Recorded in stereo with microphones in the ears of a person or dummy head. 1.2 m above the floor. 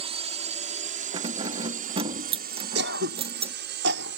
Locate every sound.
0.0 s a drone: 35° right (ahead or behind); by 4.2 s 65° right (ahead or behind)
1.1 s keys jangling: 35° right (ahead or behind)
2.8 s throat clearing: 70° right (ahead or behind)